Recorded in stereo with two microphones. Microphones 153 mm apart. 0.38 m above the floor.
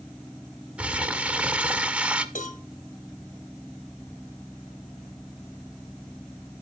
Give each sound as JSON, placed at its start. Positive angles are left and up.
{"t": 0.8, "sound": "crumpling", "side_deg": -10, "distance_m": 0.6}
{"t": 2.4, "sound": "a cowbell", "side_deg": 55, "distance_m": 1.0}